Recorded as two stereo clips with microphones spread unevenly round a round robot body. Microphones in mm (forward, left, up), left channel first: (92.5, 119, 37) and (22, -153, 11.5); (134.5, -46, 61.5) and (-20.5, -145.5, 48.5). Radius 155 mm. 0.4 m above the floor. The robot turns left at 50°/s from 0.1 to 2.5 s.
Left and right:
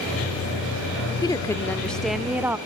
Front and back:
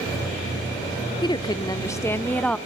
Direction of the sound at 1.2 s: 15° left.